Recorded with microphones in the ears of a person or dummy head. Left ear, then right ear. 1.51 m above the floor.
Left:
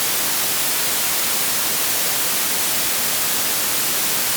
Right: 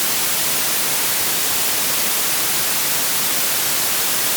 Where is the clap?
No clap in this recording.